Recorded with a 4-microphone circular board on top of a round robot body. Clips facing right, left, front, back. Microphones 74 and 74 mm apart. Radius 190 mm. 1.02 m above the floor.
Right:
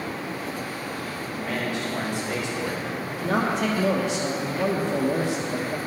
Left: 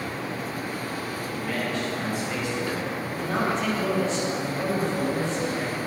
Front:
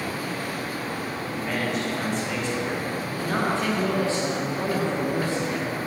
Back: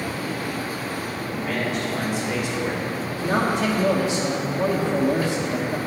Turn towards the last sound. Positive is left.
turn(degrees=-105)